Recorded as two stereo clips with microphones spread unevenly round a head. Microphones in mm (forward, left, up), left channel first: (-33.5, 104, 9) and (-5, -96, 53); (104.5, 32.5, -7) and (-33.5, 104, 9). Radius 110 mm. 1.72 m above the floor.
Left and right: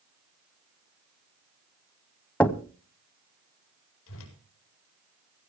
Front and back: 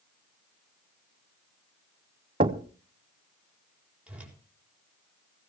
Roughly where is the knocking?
Behind.